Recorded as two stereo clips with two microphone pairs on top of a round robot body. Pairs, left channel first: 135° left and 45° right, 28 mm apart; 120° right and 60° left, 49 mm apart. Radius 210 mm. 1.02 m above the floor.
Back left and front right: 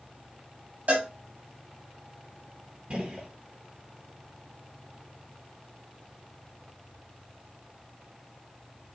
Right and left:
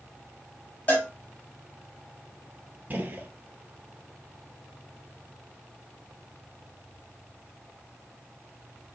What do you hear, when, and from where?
0.9 s a cowbell: 60° right, 2 m
2.9 s a gunshot: 5° left, 1.1 m